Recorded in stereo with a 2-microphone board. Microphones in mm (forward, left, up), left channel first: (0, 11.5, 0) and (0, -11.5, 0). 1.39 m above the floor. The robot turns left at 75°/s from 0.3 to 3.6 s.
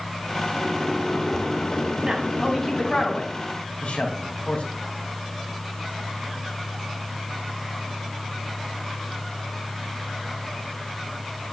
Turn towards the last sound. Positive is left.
turn(degrees=80)